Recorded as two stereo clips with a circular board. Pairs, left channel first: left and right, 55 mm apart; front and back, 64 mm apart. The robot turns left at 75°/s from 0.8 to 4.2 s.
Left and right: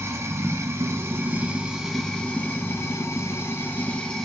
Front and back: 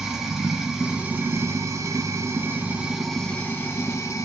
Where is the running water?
95° right, 0.8 m; by 4.3 s 10° left, 0.8 m.